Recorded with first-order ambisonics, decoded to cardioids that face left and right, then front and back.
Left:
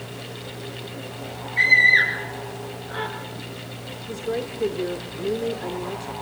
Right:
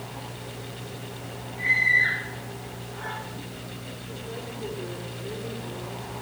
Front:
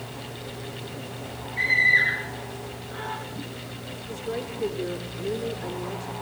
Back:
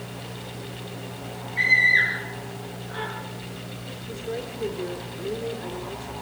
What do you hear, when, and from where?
1.6 s a scream: 100° left, 7 m; by 3.1 s 110° left, 6.5 m
4.1 s a woman speaking: 80° left, 1.4 m